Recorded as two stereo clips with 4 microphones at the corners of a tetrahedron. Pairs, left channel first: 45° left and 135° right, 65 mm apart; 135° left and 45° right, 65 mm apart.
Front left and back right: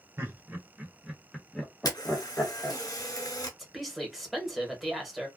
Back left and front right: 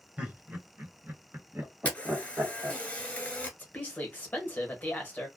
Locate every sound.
0.2 s laughter: 110° right, 1.4 m; by 2.8 s 10° right, 1.6 m
1.9 s a camera shutter: 65° left, 0.9 m
3.6 s a woman speaking: 135° left, 1.0 m